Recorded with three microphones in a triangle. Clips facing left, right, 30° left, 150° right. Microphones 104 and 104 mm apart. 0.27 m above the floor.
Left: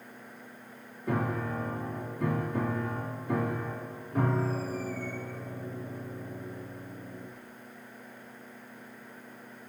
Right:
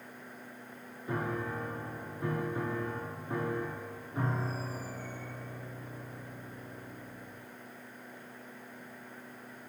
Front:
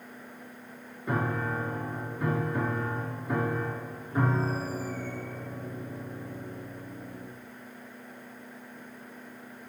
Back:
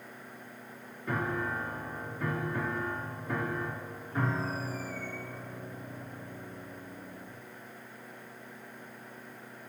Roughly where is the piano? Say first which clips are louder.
Left 4 dB, front 3 dB; left.